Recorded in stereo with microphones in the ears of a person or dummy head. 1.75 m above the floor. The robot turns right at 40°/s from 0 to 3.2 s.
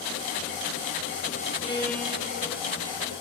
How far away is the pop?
I don't hear a pop.